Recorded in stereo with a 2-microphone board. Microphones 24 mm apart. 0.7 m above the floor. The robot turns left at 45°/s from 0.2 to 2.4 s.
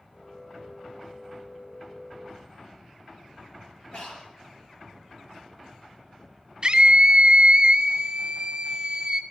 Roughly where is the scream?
Right.